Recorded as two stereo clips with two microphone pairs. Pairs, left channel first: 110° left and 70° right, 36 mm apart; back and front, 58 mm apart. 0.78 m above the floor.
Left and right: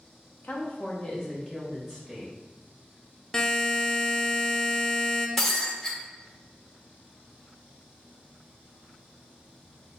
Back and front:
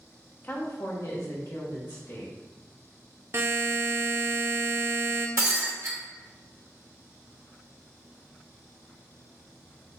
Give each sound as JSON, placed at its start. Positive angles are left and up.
{"t": 0.4, "sound": "a woman speaking", "azimuth_deg": 135, "distance_m": 0.9}
{"t": 3.3, "sound": "a buzzer", "azimuth_deg": 40, "distance_m": 0.5}
{"t": 5.4, "sound": "breaking glass", "azimuth_deg": 35, "distance_m": 1.4}